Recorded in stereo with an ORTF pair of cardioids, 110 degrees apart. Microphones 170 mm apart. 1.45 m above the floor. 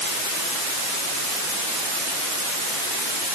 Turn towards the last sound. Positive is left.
No sound to turn to.